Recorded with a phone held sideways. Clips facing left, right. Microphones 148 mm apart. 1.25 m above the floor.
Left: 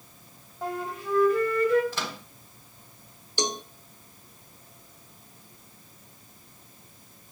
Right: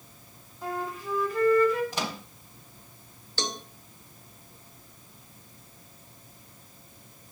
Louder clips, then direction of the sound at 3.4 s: Left 5 dB; 15° left (ahead or behind).